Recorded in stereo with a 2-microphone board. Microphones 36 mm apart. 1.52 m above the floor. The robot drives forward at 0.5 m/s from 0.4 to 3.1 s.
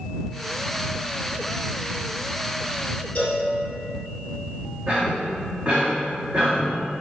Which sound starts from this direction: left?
A cowbell, at 3.1 s.